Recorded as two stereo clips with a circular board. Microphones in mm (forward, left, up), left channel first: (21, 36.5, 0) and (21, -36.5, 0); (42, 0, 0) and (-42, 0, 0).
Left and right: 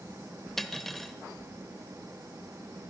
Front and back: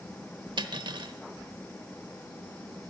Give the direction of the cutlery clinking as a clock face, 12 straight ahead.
6 o'clock.